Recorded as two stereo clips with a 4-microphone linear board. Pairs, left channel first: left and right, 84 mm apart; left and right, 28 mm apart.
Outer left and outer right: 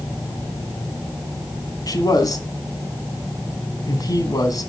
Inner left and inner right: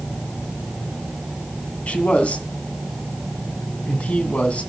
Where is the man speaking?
50° left (ahead or behind), 2.5 m.